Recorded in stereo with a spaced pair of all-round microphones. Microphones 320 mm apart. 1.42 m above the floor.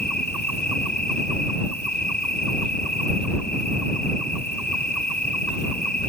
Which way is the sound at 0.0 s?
70° left (ahead or behind).